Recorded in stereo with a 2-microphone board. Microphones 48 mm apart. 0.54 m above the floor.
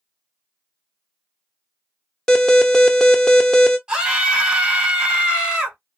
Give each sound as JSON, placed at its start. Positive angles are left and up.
{"t": 2.3, "sound": "an alarm", "side_deg": 15, "distance_m": 0.8}
{"t": 3.9, "sound": "a scream", "side_deg": -20, "distance_m": 2.0}